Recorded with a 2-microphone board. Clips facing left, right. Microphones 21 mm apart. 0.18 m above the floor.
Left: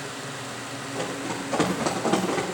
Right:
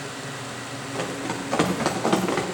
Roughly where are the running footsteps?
Right.